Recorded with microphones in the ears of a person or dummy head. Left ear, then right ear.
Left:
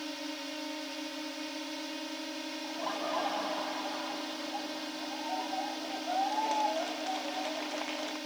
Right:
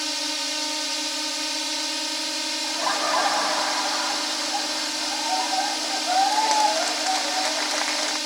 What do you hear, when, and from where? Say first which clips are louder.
0.0 s a drone: right 13 dB; 55° right (ahead or behind)
2.6 s laughter: right 11 dB; 55° right (ahead or behind)